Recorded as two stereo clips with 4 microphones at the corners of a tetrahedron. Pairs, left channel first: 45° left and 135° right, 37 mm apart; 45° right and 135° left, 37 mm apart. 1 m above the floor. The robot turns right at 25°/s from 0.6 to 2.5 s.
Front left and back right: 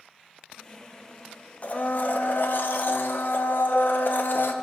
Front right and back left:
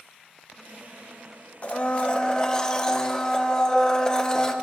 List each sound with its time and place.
1.6 s a blender: 5° left, 0.6 m; by 4.5 s 25° left, 0.6 m